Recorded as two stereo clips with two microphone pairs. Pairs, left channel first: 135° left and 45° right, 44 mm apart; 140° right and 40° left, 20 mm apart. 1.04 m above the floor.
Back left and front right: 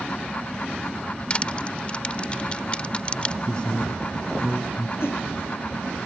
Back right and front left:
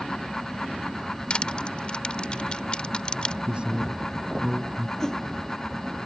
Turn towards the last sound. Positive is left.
turn(degrees=165)